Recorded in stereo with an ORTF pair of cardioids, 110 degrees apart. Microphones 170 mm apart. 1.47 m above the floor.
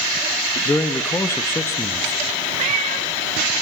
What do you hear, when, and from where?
0.7 s a man speaking: 15° left, 1.6 m
2.6 s a cat meowing: 45° right, 4 m